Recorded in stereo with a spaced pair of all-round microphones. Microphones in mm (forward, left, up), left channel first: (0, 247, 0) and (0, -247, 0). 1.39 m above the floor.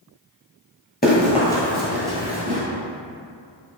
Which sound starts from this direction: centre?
Running footsteps, at 1.0 s.